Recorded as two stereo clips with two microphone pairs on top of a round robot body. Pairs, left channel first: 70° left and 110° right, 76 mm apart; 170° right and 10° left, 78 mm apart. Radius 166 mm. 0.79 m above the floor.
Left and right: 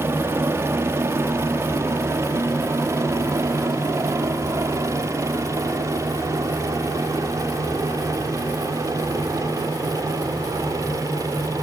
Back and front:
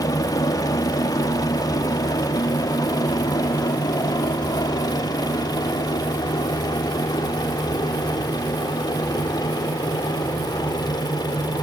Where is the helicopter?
160° right; by 11.6 s 150° right.